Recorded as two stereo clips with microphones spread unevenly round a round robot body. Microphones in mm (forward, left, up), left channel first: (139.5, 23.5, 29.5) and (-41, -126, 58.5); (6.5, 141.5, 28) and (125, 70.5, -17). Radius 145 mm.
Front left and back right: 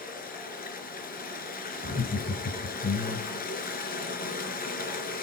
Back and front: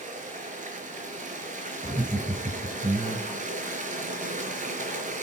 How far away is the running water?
About 4 m.